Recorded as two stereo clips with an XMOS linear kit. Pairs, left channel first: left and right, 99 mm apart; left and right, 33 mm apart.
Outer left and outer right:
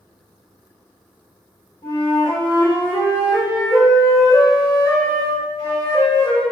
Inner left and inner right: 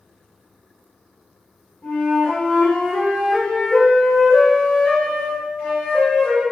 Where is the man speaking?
No man speaking in this recording.